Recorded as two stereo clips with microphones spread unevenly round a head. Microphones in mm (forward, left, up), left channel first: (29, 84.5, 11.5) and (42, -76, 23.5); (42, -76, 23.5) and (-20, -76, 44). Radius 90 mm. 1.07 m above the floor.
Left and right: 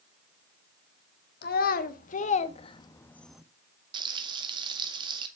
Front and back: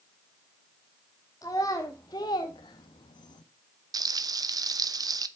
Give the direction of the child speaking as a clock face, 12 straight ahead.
10 o'clock.